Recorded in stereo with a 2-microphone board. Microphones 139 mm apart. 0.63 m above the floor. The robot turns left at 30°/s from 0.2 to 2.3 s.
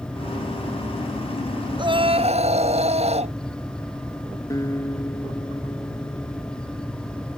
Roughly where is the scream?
Right.